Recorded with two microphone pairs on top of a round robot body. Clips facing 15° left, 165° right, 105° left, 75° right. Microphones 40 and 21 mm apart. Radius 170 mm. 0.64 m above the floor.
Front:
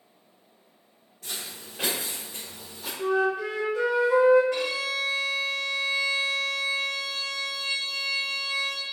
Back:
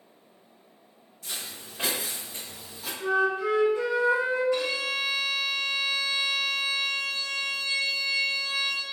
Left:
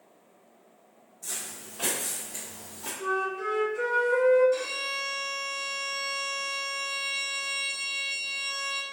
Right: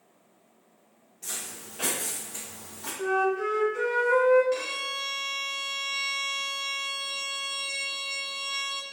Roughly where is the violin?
Ahead right.